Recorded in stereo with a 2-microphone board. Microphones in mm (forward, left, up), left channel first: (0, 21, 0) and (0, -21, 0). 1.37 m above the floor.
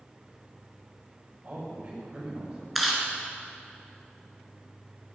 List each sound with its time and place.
1.4 s a man speaking: 45° right (ahead or behind), 5.5 m
2.8 s chewing: 5° right (ahead or behind), 2.5 m